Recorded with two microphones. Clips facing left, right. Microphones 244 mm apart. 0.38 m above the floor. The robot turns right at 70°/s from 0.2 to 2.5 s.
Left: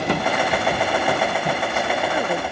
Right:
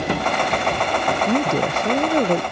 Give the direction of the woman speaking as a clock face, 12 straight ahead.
4 o'clock.